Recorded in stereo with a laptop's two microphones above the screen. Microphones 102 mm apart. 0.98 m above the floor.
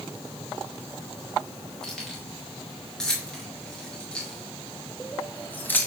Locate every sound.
1.8 s keys jangling: 5° left (ahead or behind), 3.5 m; by 5.9 s 20° left (ahead or behind), 1.0 m